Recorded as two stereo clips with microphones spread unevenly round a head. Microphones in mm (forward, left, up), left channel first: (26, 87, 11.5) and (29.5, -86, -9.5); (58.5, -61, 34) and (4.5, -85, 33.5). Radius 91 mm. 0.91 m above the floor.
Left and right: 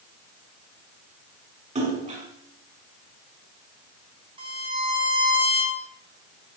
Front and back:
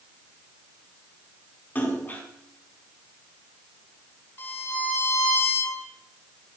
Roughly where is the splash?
Ahead right.